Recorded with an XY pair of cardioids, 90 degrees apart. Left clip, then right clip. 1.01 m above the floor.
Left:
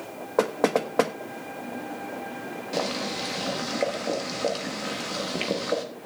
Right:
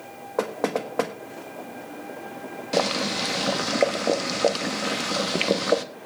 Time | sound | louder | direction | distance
0.4 | knocking | left 3 dB | 20° left | 1.2 m
2.7 | boiling | right 5 dB | 50° right | 1.1 m